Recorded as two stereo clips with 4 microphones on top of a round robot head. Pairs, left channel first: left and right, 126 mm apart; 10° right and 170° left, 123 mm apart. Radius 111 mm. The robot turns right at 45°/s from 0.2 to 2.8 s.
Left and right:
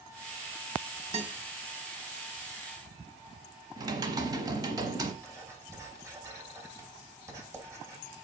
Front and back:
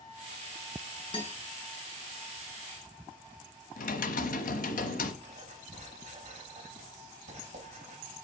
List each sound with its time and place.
1.1 s a guitar: 55° right, 2.5 m; by 1.4 s 45° right, 2.5 m
3.8 s typing on a keyboard: 25° right, 1.0 m
5.2 s writing: 155° right, 4.5 m